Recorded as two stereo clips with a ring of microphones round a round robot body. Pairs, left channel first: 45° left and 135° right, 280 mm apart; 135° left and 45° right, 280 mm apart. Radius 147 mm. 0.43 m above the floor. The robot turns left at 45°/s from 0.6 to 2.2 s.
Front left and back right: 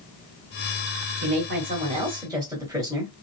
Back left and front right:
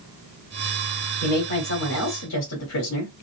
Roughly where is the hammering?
I don't hear hammering.